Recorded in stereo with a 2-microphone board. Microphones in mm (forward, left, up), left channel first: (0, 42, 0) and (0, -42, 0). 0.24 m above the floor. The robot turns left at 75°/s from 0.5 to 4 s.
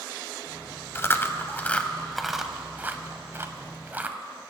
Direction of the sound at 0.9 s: 30° left (ahead or behind).